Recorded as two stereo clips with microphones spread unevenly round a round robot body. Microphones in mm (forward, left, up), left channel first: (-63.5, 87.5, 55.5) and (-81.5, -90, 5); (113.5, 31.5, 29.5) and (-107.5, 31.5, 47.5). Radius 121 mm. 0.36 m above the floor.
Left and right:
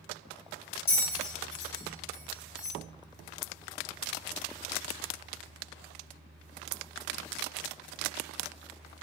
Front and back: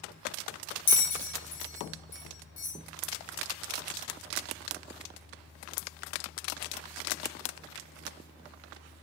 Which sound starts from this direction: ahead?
A bell, at 0.9 s.